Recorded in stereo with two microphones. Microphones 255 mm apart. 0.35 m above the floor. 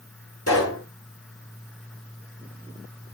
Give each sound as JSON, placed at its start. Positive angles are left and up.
{"t": 0.5, "sound": "a pop", "side_deg": 70, "distance_m": 6.0}